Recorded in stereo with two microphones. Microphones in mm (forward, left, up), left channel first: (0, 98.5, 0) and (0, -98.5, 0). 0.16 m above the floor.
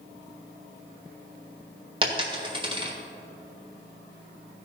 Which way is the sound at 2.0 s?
25° right (ahead or behind).